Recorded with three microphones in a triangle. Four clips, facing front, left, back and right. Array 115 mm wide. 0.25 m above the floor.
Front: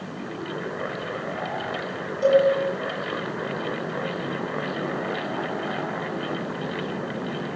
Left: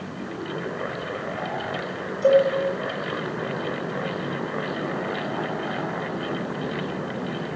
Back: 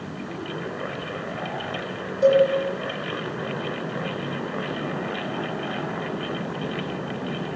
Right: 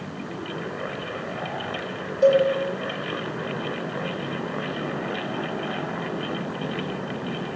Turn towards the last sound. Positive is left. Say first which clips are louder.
# even, back 1 dB
turn(degrees=-100)